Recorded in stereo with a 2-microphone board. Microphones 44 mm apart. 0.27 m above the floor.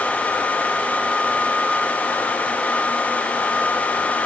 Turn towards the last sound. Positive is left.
No sound to turn to.